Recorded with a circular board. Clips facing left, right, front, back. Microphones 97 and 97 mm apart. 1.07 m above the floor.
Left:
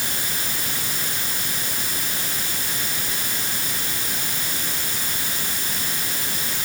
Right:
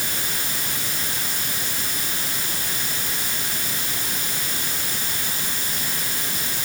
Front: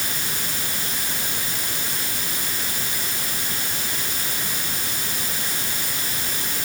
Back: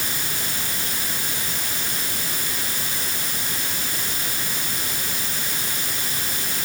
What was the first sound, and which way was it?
Only background noise.